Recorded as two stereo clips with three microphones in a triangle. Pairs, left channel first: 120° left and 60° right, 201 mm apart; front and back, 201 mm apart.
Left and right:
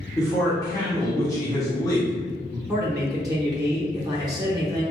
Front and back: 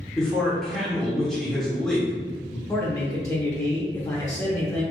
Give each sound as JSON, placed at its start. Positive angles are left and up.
{"t": 0.2, "sound": "a man speaking", "azimuth_deg": 85, "distance_m": 0.8}
{"t": 2.7, "sound": "a man speaking", "azimuth_deg": -35, "distance_m": 0.7}